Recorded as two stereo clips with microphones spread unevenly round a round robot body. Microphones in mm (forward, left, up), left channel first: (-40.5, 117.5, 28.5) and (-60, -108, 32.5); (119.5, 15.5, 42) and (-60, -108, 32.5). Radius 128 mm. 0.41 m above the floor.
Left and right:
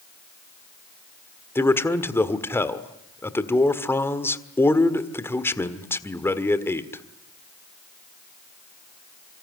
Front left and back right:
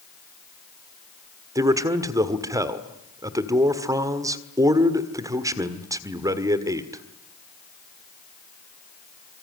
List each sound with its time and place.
1.6 s a man speaking: 155° left, 1.6 m